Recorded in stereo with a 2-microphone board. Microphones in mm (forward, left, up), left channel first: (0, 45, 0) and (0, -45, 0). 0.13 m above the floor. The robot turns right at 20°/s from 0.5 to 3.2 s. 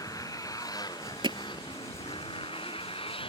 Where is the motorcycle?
40° left; by 3.3 s 95° left.